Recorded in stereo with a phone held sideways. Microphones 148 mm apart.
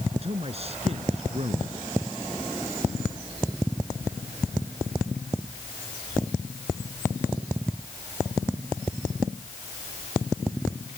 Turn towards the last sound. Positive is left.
turn(degrees=-45)  # may be behind; listen again after turning